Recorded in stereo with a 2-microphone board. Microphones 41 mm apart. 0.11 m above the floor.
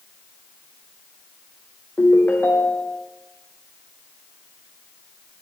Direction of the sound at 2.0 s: 60° left (ahead or behind).